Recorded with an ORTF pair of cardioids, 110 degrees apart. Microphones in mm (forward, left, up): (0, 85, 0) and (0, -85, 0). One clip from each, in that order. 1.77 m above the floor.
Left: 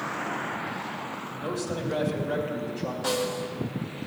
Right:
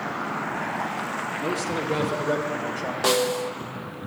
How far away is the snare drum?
About 0.6 m.